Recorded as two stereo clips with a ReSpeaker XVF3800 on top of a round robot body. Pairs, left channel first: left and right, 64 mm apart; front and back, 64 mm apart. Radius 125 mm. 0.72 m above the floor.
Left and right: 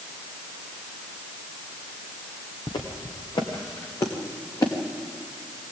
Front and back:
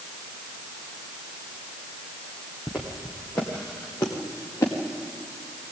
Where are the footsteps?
85° left, 2.5 m; by 4.7 s 60° left, 3 m.